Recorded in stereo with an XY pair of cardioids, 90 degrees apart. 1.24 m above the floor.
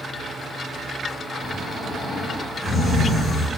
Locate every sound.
1.4 s snoring: 65° left, 1.5 m